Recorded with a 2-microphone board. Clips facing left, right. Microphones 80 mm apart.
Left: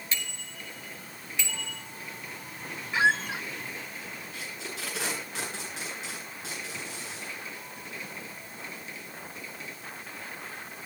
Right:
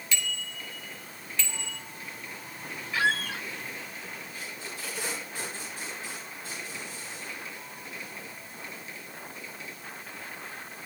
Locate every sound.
0.1 s a bicycle bell: 35° left (ahead or behind), 3.5 m; by 1.8 s 10° left (ahead or behind), 4.5 m
2.9 s a squeak: 20° left (ahead or behind), 0.7 m
4.3 s tape being pulled: 85° left, 10 m